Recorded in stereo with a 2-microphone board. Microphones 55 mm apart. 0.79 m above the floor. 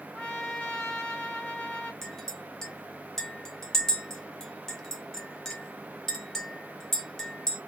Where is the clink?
5° left (ahead or behind), 1.0 m.